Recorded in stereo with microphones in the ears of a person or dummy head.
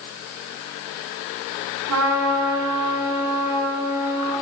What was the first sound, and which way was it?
A trumpet, 80° right.